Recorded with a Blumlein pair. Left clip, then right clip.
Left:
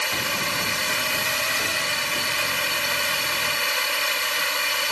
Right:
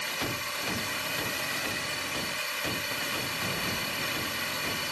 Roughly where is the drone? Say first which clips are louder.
Left 8 dB; ahead left.